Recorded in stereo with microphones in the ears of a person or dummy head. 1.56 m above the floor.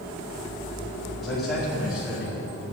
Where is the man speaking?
Centre (ahead or behind), 4.5 m; by 2.7 s 5° right (ahead or behind), 6 m.